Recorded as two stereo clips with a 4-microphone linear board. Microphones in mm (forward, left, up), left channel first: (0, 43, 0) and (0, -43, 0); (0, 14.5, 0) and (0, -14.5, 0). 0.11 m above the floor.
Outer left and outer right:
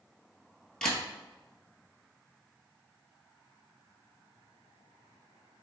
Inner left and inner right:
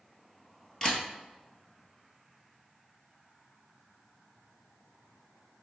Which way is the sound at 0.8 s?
10° left (ahead or behind).